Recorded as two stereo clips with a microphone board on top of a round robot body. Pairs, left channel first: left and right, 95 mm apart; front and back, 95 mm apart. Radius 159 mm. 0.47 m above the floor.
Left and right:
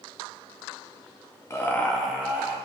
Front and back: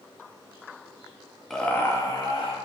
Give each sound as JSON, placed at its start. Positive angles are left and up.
{"t": 1.5, "sound": "laughter", "azimuth_deg": 80, "distance_m": 1.0}